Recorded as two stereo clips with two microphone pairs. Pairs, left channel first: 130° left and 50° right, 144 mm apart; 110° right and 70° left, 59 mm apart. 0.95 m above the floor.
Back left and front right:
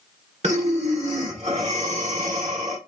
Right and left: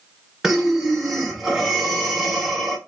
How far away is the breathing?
About 1.2 m.